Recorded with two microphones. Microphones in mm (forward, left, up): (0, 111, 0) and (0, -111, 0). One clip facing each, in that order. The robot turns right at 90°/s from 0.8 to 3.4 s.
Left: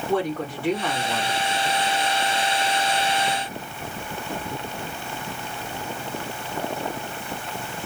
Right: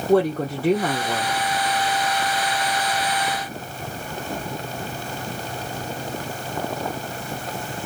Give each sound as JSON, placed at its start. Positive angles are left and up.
{"t": 0.1, "sound": "a woman speaking", "azimuth_deg": -130, "distance_m": 0.9}